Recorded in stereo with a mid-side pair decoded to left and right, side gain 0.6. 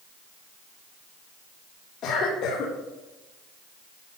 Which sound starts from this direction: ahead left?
A cough, at 2.0 s.